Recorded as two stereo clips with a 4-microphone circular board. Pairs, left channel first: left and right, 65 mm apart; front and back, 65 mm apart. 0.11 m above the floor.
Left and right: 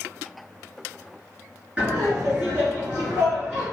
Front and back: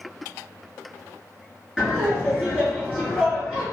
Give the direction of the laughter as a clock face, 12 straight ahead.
4 o'clock.